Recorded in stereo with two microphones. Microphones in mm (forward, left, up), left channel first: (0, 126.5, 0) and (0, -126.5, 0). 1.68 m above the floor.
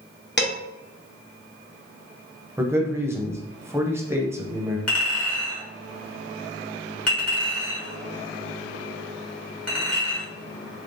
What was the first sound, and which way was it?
Dishes clattering, 40° left (ahead or behind).